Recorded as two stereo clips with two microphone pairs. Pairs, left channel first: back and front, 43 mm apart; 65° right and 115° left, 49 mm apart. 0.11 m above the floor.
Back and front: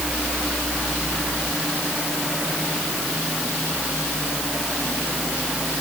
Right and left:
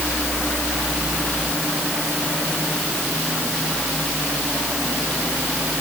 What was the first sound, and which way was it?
Only background noise.